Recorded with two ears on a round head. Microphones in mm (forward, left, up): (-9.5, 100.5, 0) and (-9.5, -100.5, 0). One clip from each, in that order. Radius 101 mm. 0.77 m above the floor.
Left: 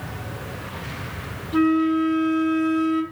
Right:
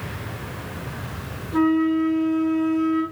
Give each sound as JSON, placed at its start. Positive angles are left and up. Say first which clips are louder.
{"t": 1.5, "sound": "a flute", "louder": "even", "side_deg": 75, "distance_m": 3.0}